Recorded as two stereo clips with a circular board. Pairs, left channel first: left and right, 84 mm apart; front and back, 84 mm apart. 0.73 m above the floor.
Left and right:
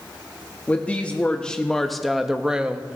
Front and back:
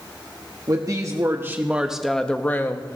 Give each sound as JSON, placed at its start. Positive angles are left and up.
{"t": 0.7, "sound": "a woman speaking", "azimuth_deg": 155, "distance_m": 1.2}